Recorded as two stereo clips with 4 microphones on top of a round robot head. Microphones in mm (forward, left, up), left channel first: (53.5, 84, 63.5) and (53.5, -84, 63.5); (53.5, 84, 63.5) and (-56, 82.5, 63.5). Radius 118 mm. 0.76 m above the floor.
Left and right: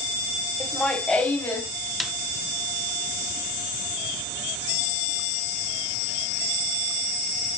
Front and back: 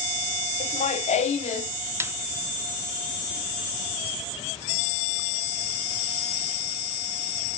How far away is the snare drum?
About 1.0 m.